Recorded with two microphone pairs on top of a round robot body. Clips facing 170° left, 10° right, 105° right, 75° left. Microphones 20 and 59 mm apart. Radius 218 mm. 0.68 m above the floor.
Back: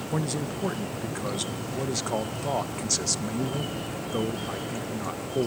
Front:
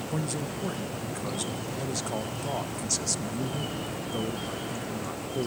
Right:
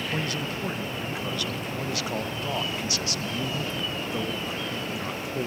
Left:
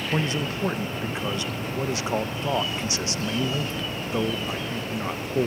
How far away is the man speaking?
About 0.6 m.